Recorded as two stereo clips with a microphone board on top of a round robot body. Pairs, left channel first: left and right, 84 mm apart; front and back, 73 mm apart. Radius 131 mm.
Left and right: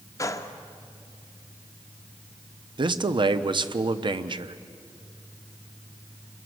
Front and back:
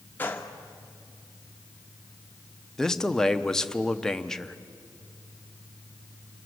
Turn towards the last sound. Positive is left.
turn(degrees=-80)